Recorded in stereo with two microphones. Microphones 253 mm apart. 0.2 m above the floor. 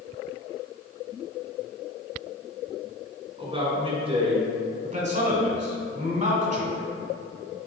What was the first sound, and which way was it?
A man speaking, 25° right (ahead or behind).